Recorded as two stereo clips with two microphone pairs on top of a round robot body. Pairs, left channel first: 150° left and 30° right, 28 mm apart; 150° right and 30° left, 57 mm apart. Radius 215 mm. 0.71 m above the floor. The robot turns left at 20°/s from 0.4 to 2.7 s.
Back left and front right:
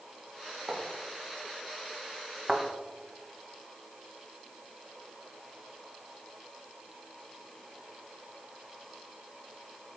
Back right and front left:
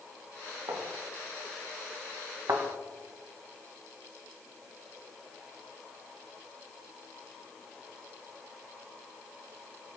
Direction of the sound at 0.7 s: 25° left.